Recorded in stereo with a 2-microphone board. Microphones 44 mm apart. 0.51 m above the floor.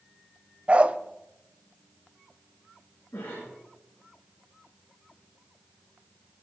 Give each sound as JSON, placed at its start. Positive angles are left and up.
{"t": 0.7, "sound": "a dog barking", "side_deg": -30, "distance_m": 0.7}
{"t": 3.1, "sound": "a cough", "side_deg": 80, "distance_m": 9.5}